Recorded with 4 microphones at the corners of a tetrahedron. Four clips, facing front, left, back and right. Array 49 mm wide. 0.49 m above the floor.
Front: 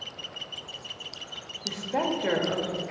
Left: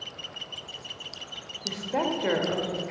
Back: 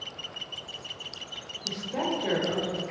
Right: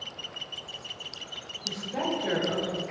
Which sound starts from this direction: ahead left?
A woman speaking, at 1.6 s.